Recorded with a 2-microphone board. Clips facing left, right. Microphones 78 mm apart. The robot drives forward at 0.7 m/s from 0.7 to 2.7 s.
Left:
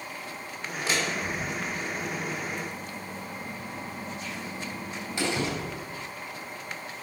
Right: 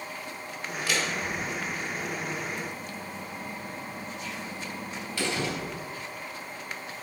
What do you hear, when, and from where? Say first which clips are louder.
0.9 s a door slam: left 1 dB; 25° left (ahead or behind), 3 m; by 5.5 s 15° left (ahead or behind), 4.5 m